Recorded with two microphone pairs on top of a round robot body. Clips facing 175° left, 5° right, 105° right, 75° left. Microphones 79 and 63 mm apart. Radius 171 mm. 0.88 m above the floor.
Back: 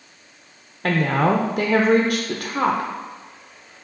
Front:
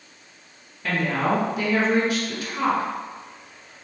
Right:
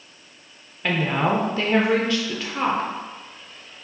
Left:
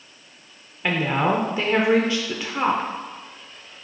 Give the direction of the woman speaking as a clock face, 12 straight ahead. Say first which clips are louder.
Back 4 dB, even; 7 o'clock.